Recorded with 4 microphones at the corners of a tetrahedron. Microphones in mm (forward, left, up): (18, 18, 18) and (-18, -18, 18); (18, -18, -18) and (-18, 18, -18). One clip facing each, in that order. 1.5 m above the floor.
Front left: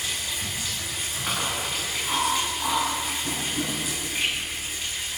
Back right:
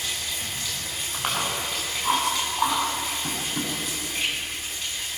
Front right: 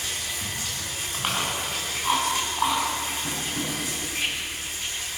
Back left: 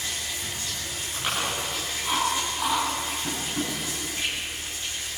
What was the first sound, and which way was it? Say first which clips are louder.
Running water: front left 1 dB, front right 1 dB; 35° right.